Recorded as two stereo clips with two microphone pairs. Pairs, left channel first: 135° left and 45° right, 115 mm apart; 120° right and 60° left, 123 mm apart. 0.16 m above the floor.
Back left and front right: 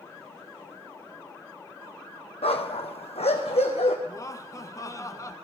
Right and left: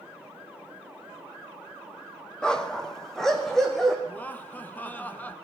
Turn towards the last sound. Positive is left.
turn(degrees=175)